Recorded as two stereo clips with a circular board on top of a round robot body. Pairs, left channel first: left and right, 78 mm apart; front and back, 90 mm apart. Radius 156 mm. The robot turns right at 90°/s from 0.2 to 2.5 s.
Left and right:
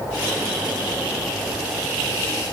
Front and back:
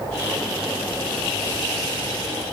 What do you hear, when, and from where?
Only background noise.